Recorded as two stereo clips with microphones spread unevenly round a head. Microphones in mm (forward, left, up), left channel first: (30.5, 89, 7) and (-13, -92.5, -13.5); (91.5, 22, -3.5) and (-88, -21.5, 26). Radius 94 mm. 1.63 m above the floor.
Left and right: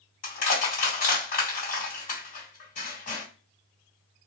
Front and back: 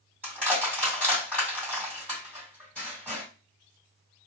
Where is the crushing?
105° left, 2 m.